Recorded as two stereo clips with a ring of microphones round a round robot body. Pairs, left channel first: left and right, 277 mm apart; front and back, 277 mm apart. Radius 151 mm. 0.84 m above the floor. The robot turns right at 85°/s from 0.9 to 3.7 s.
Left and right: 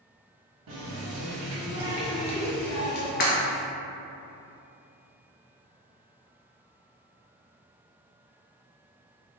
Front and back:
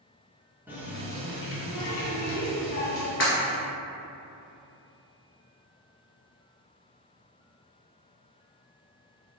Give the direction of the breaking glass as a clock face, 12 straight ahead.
11 o'clock.